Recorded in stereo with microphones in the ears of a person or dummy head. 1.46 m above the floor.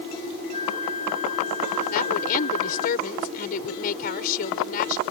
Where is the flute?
40° left (ahead or behind).